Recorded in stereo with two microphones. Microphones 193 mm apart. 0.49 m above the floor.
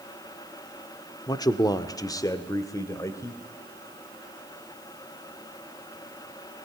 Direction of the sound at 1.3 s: 20° left (ahead or behind).